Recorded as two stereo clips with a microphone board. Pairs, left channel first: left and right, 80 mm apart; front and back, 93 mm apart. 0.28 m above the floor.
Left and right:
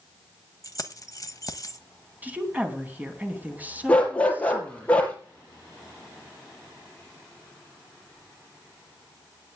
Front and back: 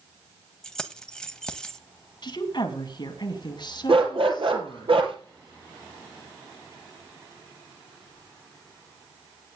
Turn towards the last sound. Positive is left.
turn(degrees=165)